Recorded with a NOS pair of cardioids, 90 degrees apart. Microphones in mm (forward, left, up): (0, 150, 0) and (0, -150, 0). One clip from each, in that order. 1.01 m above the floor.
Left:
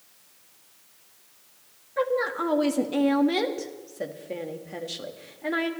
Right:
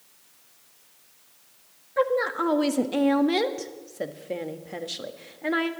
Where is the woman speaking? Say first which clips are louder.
Right 2 dB; 15° right, 1.5 m.